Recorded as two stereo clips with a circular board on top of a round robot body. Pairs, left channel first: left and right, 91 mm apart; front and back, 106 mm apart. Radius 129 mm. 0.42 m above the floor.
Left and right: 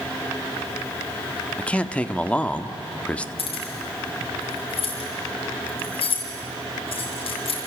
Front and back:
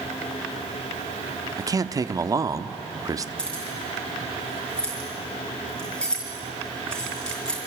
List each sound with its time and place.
1.6 s a man speaking: 160° left, 1.1 m
3.4 s keys jangling: 80° left, 5 m